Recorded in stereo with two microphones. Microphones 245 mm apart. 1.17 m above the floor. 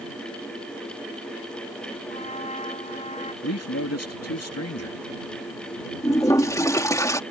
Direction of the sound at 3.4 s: 70° left (ahead or behind).